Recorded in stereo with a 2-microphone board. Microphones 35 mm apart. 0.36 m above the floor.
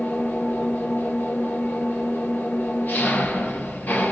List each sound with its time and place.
0.0 s an engine running: 65° left (ahead or behind), 4.5 m